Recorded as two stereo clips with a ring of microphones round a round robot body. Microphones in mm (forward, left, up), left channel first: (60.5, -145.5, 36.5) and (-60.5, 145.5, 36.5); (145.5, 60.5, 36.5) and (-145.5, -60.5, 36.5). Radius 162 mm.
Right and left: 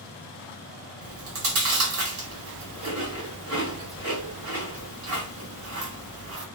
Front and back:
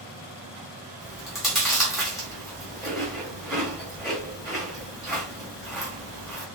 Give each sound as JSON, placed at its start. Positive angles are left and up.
{"t": 1.0, "sound": "chewing", "azimuth_deg": 115, "distance_m": 1.7}